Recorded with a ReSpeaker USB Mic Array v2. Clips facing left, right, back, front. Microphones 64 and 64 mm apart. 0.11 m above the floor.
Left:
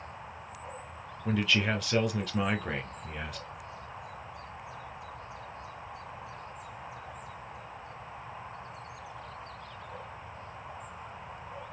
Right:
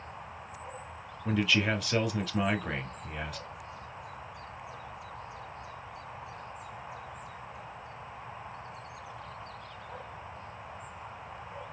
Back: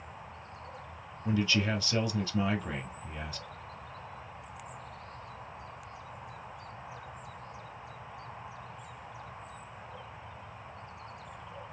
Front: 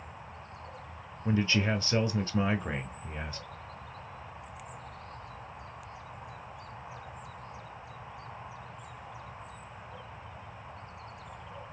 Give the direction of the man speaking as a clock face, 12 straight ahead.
12 o'clock.